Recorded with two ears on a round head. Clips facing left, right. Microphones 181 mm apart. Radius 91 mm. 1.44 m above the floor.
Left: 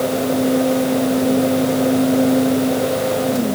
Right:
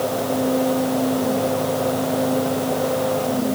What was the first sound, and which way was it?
Only background noise.